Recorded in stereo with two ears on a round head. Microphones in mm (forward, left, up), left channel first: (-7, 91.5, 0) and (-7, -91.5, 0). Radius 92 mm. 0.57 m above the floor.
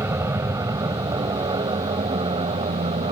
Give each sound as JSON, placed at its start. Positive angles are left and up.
{"t": 0.0, "sound": "an aircraft", "side_deg": -15}